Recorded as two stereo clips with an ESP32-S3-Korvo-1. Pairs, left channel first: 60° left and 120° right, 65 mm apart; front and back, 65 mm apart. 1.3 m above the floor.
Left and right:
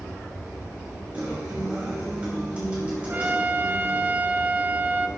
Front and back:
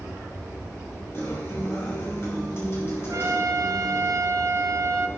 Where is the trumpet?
175° right, 0.7 m.